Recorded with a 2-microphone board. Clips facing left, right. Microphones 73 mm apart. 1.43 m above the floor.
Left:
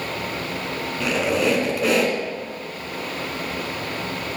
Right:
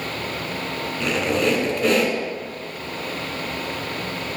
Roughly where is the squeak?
Centre.